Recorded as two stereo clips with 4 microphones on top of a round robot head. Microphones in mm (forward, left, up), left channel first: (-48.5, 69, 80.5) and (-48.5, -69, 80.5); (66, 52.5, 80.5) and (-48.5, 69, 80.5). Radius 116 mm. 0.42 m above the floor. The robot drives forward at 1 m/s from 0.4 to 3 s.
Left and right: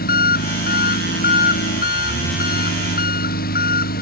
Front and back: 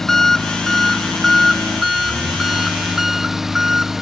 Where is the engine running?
80° left; by 4.0 s 85° left.